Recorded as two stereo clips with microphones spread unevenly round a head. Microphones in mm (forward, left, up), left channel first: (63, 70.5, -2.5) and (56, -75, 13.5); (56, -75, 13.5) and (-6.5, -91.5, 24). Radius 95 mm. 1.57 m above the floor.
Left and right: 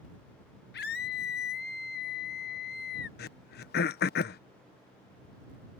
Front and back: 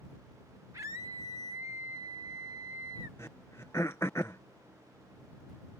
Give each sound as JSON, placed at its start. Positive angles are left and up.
{"t": 0.7, "sound": "a scream", "azimuth_deg": 120}
{"t": 3.2, "sound": "throat clearing", "azimuth_deg": 90}